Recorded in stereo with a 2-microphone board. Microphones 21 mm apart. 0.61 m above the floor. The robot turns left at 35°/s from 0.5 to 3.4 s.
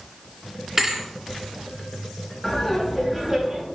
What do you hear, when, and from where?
0.8 s a thud: 20° right (ahead or behind), 2 m; by 1.1 s 30° right (ahead or behind), 2 m
2.4 s laughter: 20° left, 3 m; by 3.6 s 15° right, 3 m